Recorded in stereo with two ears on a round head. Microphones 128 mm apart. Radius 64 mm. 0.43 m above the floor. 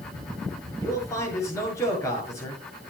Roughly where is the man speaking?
Left.